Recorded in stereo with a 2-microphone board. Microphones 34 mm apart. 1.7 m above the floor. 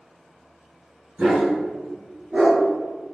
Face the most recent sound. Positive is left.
turn(degrees=-20)  # may be behind; listen again after turning